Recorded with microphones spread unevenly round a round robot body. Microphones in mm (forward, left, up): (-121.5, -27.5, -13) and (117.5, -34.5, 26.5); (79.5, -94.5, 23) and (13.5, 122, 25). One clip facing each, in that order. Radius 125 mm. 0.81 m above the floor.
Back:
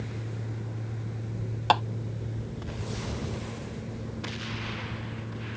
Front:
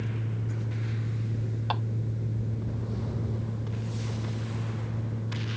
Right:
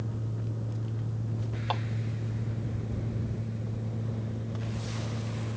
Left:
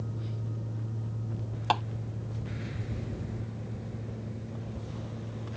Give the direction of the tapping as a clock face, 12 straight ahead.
7 o'clock.